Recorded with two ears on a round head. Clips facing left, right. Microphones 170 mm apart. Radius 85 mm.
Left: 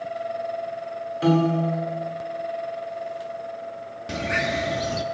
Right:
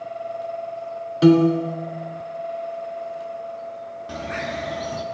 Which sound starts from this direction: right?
A piano, at 1.2 s.